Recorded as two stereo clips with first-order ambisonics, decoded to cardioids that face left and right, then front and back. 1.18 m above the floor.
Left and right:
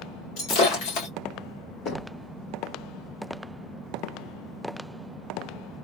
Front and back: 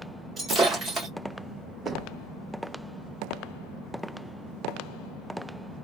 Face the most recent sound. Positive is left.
turn(degrees=95)